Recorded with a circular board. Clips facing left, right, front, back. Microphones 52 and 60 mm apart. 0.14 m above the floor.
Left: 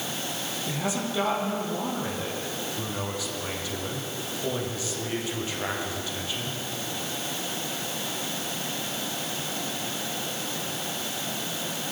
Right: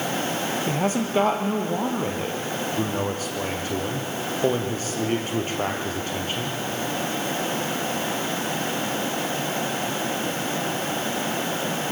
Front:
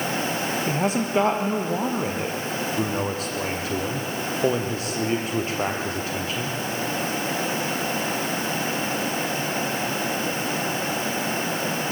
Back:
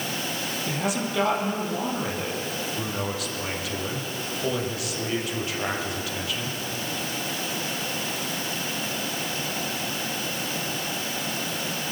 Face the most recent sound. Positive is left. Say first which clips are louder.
# right 4 dB, front 2 dB
turn(degrees=-50)